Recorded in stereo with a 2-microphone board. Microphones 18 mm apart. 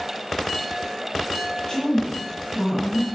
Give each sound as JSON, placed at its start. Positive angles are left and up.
{"t": 1.7, "sound": "a woman speaking", "side_deg": 45, "distance_m": 2.5}